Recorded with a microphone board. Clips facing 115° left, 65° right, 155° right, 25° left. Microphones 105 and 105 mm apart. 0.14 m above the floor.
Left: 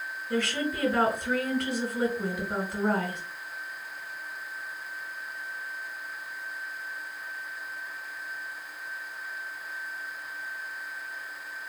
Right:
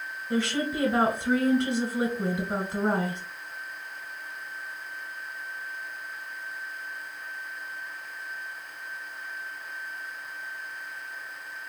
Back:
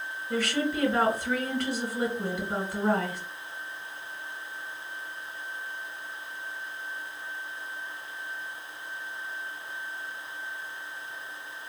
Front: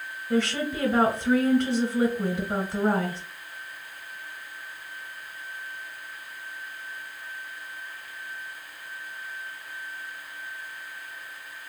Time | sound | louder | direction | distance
0.3 | a woman speaking | right 2 dB, front 2 dB | 25° right | 1.6 m